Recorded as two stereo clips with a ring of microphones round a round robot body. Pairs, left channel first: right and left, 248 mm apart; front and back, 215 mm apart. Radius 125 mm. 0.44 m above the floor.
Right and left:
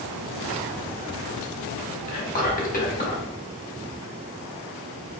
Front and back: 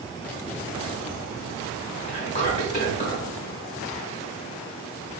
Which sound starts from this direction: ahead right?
Whispering, at 2.1 s.